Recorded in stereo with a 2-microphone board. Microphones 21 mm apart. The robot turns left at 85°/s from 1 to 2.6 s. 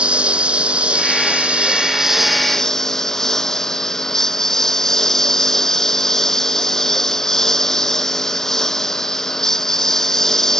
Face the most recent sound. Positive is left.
turn(degrees=160)